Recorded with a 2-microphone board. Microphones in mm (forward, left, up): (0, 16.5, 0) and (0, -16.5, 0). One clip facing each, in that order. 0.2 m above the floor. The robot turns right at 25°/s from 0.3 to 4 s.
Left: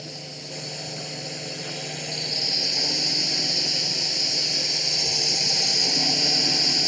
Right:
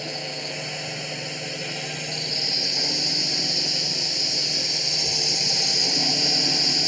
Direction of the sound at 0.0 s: 85° right.